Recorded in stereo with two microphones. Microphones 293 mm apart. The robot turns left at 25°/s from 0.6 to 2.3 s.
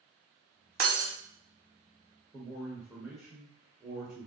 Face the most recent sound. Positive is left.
turn(degrees=0)  # may be behind; listen again after turning